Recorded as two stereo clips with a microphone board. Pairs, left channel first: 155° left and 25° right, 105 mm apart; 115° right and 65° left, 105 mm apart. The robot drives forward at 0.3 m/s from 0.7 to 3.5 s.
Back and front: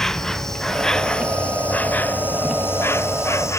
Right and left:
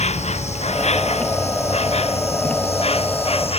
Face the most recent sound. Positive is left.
turn(degrees=-140)